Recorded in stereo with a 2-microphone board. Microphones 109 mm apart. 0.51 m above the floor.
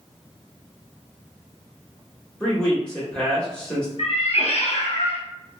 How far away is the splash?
I don't hear a splash.